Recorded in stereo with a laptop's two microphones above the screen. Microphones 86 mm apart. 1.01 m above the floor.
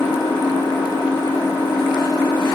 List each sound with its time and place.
0.0 s an engine running: 85° left, 1.6 m